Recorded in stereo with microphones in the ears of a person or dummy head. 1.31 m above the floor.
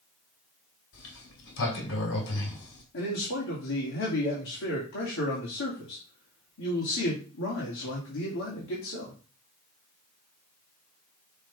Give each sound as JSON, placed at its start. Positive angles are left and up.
{"t": 0.9, "sound": "a sliding door", "side_deg": 70, "distance_m": 2.0}
{"t": 2.9, "sound": "a man speaking", "side_deg": 75, "distance_m": 2.5}